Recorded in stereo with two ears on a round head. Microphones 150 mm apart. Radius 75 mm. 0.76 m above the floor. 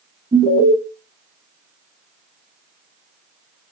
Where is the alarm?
20° right (ahead or behind), 2 m.